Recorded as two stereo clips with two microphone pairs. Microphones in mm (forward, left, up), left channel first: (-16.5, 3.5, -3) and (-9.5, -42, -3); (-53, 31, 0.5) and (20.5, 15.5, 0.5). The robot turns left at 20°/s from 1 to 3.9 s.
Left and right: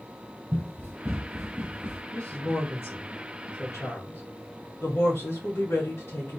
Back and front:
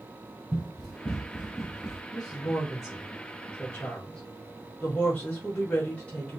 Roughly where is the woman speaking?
Behind left.